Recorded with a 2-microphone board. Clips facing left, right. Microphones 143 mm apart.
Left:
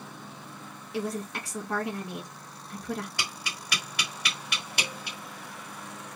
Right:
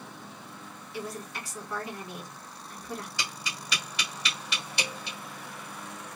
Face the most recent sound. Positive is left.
turn(degrees=55)  # may be behind; listen again after turning